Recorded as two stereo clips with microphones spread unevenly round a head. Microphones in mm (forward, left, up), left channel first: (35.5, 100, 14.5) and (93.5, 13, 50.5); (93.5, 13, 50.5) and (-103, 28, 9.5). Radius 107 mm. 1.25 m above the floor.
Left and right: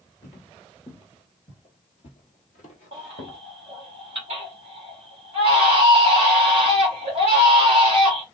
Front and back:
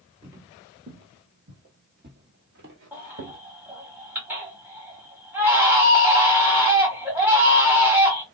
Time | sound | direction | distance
0.2 | footsteps | 90° right | 1.3 m
2.9 | a baby crying | 100° right | 1.3 m